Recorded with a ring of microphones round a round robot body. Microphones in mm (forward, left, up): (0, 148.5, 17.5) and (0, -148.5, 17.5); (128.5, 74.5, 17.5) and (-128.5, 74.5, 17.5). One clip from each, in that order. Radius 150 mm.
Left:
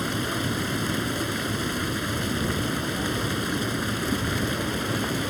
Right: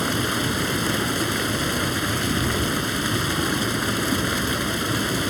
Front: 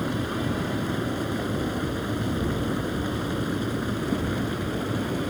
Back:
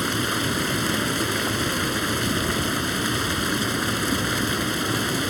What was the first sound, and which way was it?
Running water, 170° right.